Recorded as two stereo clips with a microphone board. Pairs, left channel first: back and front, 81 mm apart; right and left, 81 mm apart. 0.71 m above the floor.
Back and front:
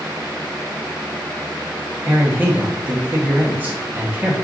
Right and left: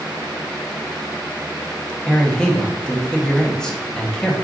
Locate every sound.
2.1 s a man speaking: 20° right, 0.7 m